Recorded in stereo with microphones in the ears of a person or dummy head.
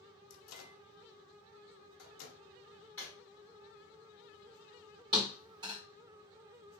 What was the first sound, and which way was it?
A microwave, 75° left (ahead or behind).